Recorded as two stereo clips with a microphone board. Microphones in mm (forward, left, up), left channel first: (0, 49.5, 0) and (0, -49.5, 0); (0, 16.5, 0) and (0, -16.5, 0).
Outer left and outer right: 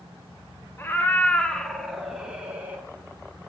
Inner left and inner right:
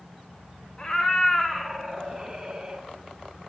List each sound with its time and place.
0.8 s a cat meowing: 25° left (ahead or behind), 1.5 m; by 2.9 s 20° right (ahead or behind), 1.8 m